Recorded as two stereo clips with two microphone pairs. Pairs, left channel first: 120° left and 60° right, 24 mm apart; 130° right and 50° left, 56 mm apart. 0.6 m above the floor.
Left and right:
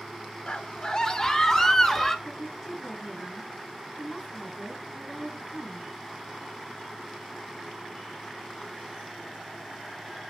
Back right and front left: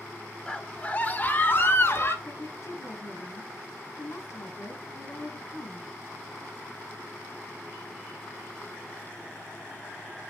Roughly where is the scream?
Behind.